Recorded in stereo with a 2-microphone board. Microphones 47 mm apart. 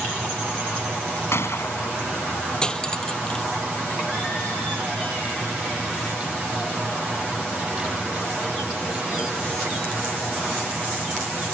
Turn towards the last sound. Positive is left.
turn(degrees=20)  # may be behind; listen again after turning